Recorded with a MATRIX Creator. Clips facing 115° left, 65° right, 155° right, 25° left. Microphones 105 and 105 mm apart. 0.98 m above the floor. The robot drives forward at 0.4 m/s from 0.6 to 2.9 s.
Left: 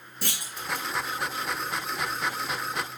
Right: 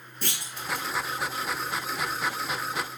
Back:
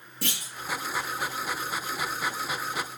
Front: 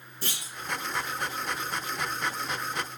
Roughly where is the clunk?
Behind.